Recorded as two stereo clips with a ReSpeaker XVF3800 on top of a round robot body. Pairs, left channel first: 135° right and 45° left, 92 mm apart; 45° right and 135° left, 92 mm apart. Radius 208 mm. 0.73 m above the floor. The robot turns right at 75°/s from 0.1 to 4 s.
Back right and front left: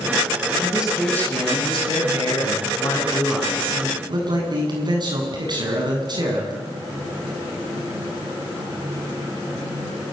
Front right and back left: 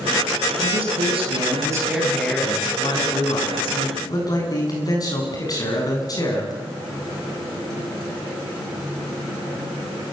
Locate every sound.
0.6 s a man speaking: 110° left, 8 m; by 6.6 s 5° left, 8 m